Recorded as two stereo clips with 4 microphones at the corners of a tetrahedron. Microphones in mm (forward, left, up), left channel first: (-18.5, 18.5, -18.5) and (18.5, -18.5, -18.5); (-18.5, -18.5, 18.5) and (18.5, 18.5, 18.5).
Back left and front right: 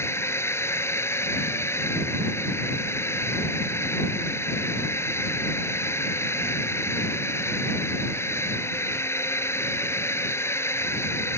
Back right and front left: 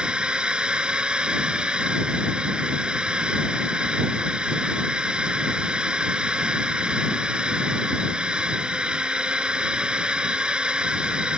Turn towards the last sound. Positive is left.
turn(degrees=115)